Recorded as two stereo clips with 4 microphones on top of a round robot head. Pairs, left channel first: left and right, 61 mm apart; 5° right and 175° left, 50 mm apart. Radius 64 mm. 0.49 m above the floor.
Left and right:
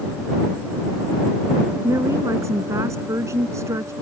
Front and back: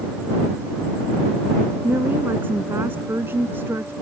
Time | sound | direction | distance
1.8 | a woman speaking | 130° right | ?